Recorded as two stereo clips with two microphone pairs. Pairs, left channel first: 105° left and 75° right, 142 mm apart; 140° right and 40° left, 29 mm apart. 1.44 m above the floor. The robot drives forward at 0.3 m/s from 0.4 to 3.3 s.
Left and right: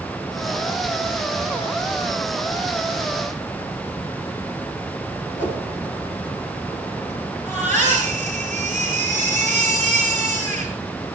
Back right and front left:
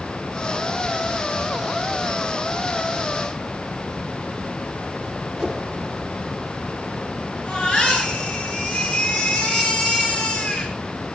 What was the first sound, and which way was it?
A whoosh, 125° left.